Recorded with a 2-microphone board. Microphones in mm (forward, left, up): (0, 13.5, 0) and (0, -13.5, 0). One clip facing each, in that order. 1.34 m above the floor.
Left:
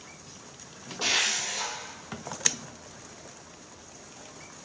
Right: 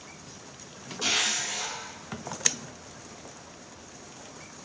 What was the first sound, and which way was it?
A zipper, 60° left (ahead or behind).